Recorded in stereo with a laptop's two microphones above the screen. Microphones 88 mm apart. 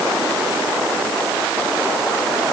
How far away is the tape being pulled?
No tape being pulled in this recording.